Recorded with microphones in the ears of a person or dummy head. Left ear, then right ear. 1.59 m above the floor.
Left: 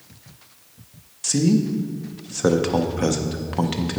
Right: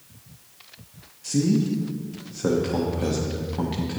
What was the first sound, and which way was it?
A man speaking, 40° left (ahead or behind).